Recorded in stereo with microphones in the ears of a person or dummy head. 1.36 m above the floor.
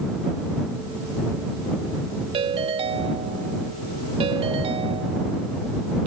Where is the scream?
I don't hear a scream.